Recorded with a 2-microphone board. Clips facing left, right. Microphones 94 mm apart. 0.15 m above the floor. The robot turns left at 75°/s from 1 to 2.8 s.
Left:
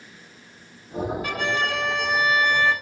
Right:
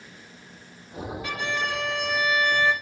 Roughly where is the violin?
Behind left.